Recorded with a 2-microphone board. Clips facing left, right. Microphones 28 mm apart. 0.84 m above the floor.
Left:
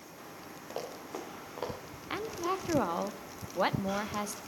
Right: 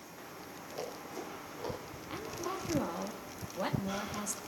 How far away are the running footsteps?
About 8 m.